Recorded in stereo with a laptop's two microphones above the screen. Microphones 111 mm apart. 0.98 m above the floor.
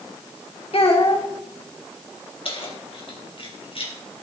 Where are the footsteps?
I don't hear footsteps.